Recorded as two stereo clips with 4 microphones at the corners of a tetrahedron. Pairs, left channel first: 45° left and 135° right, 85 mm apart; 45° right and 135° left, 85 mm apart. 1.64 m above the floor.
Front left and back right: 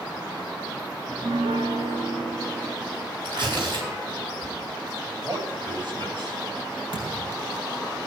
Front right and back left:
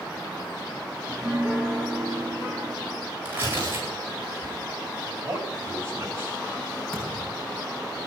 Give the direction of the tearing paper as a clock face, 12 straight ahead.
5 o'clock.